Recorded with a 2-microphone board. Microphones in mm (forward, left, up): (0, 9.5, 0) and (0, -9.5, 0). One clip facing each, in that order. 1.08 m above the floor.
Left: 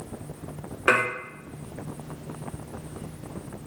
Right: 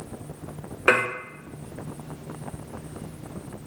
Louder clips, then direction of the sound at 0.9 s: Right 1 dB; 10° right (ahead or behind).